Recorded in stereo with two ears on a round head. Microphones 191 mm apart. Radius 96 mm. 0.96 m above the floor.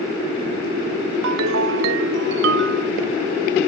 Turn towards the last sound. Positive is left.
turn(degrees=-70)  # may be behind; listen again after turning